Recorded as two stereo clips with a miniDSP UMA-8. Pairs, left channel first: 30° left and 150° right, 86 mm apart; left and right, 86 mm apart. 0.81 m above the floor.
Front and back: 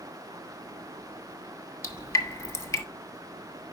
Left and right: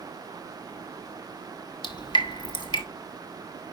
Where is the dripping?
85° left, 1.1 m.